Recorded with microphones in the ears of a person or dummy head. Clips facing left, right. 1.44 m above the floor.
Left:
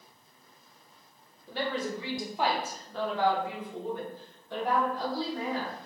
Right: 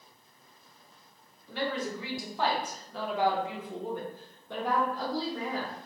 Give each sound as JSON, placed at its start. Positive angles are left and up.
{"t": 1.5, "sound": "a woman speaking", "side_deg": 35, "distance_m": 1.2}